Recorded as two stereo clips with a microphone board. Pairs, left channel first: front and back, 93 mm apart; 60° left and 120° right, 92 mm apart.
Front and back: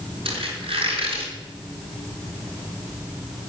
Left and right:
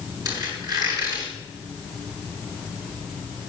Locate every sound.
0.2 s a squeak: 165° right, 8 m